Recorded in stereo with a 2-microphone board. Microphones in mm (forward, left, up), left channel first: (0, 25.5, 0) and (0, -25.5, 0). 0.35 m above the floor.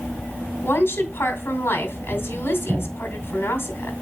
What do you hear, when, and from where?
0.6 s a woman speaking: 45° left (ahead or behind), 2 m